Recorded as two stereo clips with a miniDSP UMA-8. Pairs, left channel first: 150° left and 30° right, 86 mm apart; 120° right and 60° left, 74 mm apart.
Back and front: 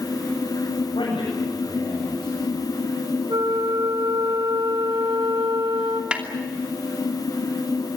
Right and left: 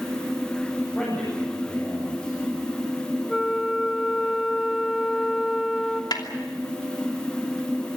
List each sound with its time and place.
0.9 s a man speaking: 170° left, 9 m
3.3 s a flute: 35° right, 1.8 m
6.1 s a snare drum: 105° right, 2.5 m